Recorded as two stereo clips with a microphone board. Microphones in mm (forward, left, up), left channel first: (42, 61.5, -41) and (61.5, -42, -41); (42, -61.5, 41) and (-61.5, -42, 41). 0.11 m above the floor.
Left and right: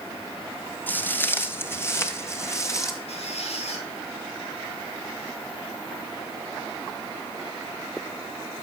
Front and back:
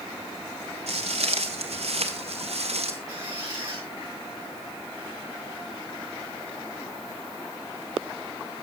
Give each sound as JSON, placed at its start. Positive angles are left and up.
{"t": 0.9, "sound": "footsteps", "azimuth_deg": 175, "distance_m": 1.9}
{"t": 3.1, "sound": "a squeak", "azimuth_deg": 110, "distance_m": 7.0}